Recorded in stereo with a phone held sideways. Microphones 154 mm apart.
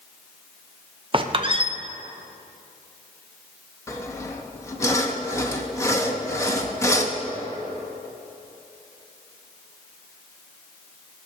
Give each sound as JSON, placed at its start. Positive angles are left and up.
{"t": 1.1, "sound": "a squeak", "side_deg": -35, "distance_m": 0.7}
{"t": 3.9, "sound": "sawing", "side_deg": 20, "distance_m": 1.0}